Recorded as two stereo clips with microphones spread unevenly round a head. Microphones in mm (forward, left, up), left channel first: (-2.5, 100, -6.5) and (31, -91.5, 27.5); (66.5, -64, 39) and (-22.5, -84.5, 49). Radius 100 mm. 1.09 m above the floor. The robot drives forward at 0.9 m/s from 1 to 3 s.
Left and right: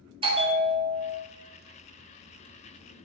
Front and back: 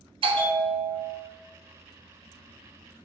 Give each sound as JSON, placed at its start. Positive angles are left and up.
{"t": 0.2, "sound": "a bell", "azimuth_deg": -145, "distance_m": 1.7}